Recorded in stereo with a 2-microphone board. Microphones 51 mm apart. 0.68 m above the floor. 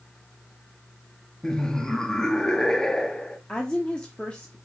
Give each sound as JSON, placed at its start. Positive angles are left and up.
{"t": 1.4, "sound": "laughter", "side_deg": 10, "distance_m": 0.9}
{"t": 3.5, "sound": "a woman speaking", "side_deg": 20, "distance_m": 1.0}